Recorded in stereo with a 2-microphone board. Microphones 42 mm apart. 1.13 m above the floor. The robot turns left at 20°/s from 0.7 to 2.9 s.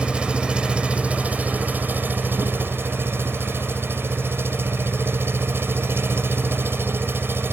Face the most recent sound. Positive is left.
turn(degrees=-70)